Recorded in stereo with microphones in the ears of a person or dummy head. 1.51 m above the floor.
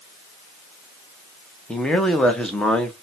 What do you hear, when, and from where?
1.7 s a man speaking: 5° left (ahead or behind), 0.7 m